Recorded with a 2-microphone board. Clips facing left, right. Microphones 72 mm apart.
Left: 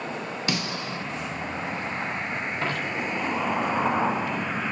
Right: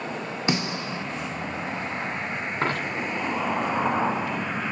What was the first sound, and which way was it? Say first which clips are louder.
A snare drum: right 4 dB; 20° right (ahead or behind).